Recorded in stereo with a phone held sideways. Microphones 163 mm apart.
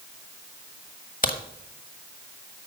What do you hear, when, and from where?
1.2 s a crack: 55° left (ahead or behind), 1.2 m